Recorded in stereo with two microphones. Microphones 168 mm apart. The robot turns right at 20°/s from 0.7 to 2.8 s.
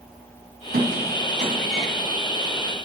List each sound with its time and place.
0.7 s a squeak: 65° right (ahead or behind), 1.9 m; by 1.9 s 45° right (ahead or behind), 1.9 m